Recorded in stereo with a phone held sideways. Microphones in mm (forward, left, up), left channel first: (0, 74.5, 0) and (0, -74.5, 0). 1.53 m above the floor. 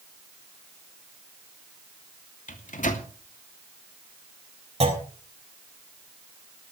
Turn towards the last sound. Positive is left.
turn(degrees=-45)  # may be behind; listen again after turning